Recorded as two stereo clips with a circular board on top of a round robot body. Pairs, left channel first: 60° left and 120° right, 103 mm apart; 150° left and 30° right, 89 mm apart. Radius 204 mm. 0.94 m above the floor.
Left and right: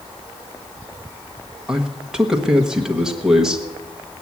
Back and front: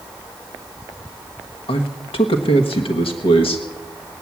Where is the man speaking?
155° left, 1.2 m.